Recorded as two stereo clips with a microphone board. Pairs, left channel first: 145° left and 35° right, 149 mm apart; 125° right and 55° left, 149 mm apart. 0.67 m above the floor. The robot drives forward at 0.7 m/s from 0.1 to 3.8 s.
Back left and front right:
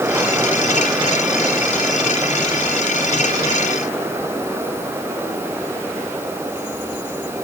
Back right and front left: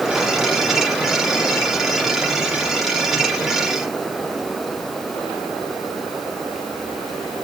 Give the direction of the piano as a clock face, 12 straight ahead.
I don't hear a piano.